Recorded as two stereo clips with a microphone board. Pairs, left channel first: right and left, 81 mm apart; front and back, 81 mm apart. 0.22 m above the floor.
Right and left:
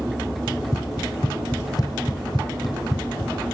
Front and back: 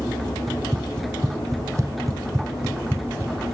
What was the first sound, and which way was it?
Running footsteps, 135° right.